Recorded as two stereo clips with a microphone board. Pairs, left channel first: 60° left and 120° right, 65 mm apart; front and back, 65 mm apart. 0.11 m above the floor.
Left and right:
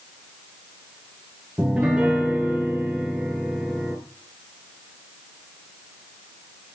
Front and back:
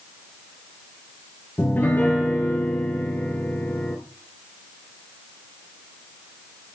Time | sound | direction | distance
1.6 | a piano | 55° right | 1.1 m